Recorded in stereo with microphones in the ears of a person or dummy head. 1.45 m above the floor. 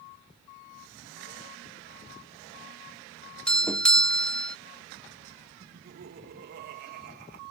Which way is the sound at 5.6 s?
50° right (ahead or behind).